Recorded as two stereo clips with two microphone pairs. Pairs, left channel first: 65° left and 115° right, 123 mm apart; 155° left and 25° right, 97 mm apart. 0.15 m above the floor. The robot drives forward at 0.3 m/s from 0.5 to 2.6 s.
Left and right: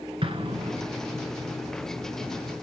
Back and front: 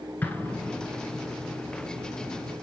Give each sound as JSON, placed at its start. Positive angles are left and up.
{"t": 0.2, "sound": "an explosion", "azimuth_deg": -135, "distance_m": 1.2}